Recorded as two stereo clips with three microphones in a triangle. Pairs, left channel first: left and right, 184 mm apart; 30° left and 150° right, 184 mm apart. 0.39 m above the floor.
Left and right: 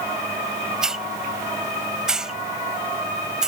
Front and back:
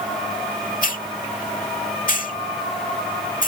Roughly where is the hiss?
Ahead.